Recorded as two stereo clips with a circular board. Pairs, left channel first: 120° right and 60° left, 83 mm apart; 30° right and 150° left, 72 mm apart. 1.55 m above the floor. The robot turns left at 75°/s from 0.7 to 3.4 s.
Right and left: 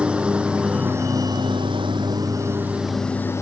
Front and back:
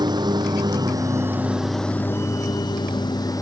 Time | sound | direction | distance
0.0 | a lawn mower | 135° left | ?